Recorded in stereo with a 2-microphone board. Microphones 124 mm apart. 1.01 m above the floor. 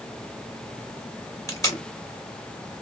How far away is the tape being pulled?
About 1.4 m.